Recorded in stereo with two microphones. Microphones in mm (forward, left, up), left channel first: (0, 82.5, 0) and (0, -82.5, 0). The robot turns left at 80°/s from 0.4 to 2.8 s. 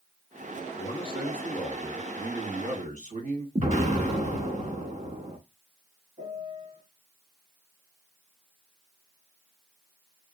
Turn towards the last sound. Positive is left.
turn(degrees=-60)  # may be behind; listen again after turning